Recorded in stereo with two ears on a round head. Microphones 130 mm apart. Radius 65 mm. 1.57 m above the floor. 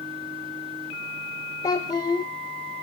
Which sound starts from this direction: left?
A child speaking, at 1.6 s.